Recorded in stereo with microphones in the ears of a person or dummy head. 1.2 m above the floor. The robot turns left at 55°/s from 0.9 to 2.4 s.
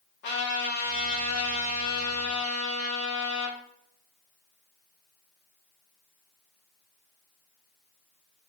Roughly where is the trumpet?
Behind left.